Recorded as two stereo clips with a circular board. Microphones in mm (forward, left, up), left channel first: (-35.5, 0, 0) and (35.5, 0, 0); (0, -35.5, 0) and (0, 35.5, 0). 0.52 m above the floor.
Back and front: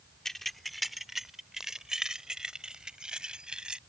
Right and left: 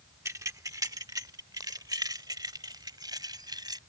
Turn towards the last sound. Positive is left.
turn(degrees=80)